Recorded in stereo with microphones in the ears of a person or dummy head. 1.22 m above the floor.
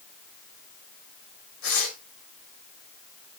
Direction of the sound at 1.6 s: 75° left (ahead or behind).